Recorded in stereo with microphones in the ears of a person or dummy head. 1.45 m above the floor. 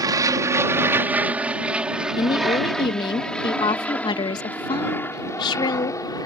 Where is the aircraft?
15° right (ahead or behind); by 6.3 s 20° left (ahead or behind).